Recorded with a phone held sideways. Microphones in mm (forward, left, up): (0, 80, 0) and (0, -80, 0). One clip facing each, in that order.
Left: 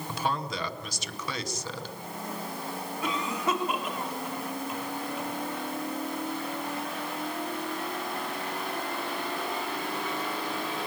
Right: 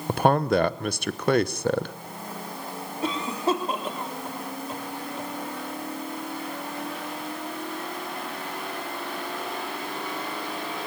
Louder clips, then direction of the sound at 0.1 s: Right 12 dB; 60° right (ahead or behind).